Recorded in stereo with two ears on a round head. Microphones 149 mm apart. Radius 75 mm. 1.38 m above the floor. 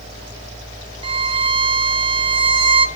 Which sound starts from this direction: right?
A violin, at 1.0 s.